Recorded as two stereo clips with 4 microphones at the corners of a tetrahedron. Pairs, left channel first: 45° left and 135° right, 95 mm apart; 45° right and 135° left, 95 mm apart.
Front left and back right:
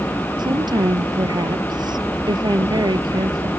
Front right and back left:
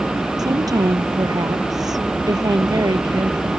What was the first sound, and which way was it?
A woman speaking, 175° right.